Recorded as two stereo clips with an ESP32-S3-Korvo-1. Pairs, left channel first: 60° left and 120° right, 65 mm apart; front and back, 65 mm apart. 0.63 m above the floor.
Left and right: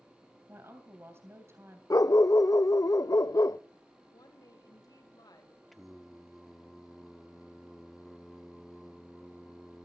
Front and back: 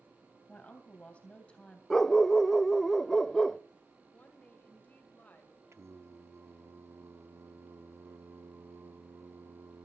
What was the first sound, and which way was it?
A woman speaking, 70° right.